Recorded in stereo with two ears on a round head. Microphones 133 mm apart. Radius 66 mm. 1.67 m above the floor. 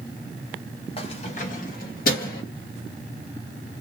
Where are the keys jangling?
40° left (ahead or behind), 0.8 m; by 2.4 s 65° left (ahead or behind), 1.6 m.